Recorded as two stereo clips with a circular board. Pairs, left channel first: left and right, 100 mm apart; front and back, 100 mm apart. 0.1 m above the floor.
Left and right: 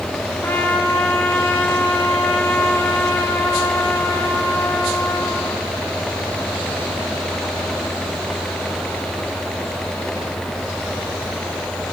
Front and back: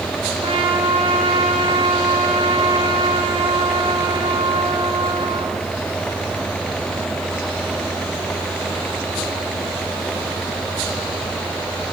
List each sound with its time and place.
0.4 s a trumpet: 155° left, 6 m